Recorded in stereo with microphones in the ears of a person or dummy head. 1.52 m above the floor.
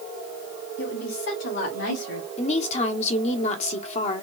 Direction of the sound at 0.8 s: 70° left (ahead or behind).